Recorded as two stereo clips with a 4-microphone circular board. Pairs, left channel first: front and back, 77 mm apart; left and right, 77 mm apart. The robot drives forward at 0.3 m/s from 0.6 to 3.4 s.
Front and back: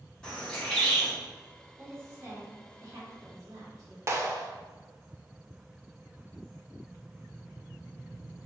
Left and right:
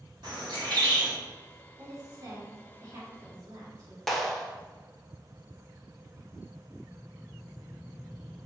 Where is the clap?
175° left, 0.6 m.